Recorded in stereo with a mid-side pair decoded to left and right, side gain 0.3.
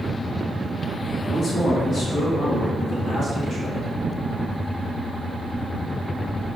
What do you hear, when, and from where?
1.3 s a man speaking: 70° left, 2 m; by 3.9 s 75° left, 3.5 m